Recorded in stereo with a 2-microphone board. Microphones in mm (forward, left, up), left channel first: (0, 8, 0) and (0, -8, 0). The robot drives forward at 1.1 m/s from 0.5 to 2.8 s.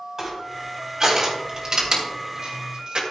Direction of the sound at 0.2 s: 30° right (ahead or behind).